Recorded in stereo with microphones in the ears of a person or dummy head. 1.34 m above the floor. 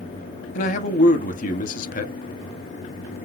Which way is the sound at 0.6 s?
45° left (ahead or behind).